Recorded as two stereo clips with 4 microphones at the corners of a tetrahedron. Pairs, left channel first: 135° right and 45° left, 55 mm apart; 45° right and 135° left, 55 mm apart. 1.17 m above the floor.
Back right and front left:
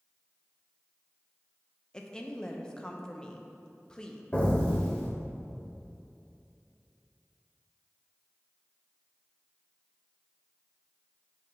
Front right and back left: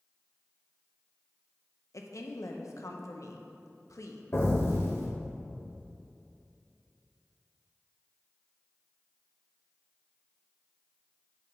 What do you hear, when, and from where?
1.9 s a woman speaking: 60° right, 0.7 m
4.3 s an explosion: 75° right, 1.3 m